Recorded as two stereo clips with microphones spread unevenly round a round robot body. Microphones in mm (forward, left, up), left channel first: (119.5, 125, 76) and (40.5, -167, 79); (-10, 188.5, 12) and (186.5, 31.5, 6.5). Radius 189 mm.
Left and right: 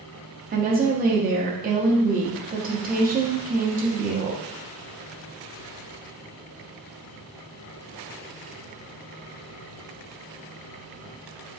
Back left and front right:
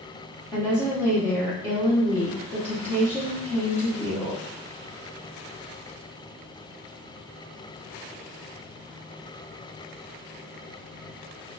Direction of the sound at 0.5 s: 140° right.